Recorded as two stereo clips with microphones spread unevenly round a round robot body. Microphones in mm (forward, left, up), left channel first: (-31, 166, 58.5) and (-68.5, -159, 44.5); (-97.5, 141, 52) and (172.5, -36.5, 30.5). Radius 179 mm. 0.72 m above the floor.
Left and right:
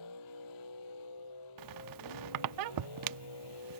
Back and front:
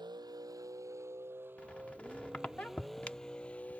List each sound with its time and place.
0.0 s a vehicle: 45° left; by 3.8 s 60° left
1.6 s a squeak: 125° right